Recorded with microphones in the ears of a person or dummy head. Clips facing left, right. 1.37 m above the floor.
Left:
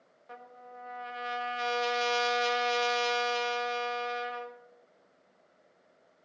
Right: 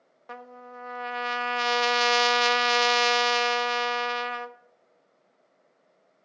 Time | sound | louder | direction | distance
0.3 | a trumpet | right 5 dB | 75° right (ahead or behind) | 0.5 m